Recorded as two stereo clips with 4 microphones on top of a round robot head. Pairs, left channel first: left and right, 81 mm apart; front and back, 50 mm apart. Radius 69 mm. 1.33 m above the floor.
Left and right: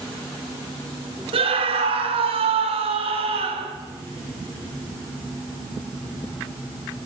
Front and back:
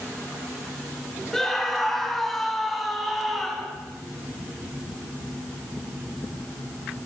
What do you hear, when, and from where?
1.3 s a scream: 85° right, 5 m